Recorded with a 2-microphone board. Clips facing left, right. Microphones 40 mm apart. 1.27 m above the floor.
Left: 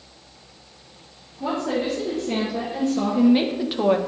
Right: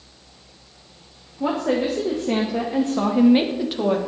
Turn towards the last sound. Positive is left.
turn(degrees=20)  # may be behind; listen again after turning